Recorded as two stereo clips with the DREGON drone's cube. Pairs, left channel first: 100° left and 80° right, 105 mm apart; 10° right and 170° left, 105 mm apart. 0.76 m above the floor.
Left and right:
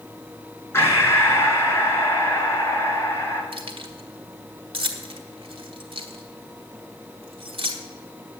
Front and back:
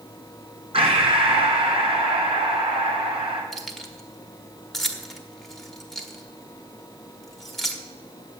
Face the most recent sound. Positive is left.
turn(degrees=-100)